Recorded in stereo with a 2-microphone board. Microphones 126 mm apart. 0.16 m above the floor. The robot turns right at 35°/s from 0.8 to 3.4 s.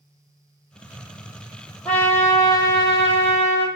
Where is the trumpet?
5° left, 1.1 m; by 3.7 s 60° left, 1.1 m.